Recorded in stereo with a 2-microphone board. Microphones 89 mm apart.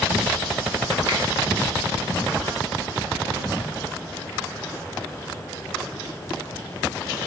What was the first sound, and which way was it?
A finger snap, 60° right (ahead or behind).